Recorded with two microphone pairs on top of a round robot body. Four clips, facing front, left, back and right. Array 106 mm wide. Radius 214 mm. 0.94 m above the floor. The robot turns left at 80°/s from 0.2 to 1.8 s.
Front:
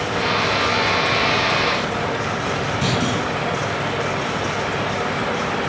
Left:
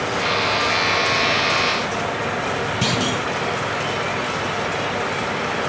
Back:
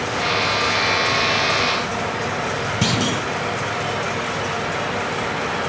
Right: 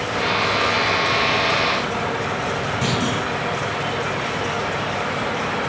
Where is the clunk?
150° left, 1.0 m.